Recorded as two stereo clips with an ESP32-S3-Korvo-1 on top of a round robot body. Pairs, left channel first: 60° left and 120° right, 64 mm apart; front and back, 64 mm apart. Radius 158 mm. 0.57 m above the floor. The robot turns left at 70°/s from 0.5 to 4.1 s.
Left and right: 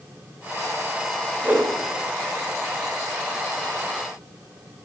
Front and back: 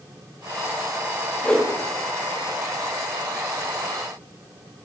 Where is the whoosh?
60° right, 1.0 m; by 1.7 s 75° right, 1.0 m.